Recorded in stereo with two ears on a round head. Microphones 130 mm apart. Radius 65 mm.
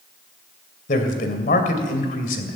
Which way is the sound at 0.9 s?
60° left (ahead or behind).